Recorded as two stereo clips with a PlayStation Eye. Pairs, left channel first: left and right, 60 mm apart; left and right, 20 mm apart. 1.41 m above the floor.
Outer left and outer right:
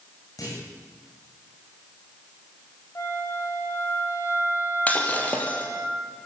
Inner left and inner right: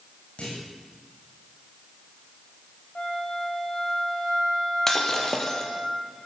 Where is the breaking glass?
25° left (ahead or behind), 4 m.